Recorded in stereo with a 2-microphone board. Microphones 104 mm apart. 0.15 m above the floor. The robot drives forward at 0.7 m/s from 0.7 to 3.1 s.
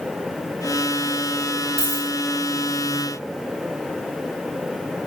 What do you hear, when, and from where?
1.8 s a dropped coin: 75° right (ahead or behind), 2.5 m